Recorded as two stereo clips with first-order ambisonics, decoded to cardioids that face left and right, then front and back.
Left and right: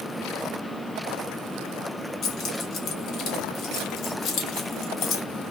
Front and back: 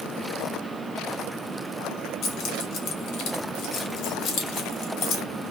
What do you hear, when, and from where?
2.2 s keys jangling: 40° left, 0.8 m